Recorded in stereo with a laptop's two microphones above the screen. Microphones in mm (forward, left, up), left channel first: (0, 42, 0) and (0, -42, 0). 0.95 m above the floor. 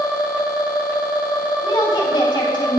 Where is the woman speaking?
70° left (ahead or behind), 2 m.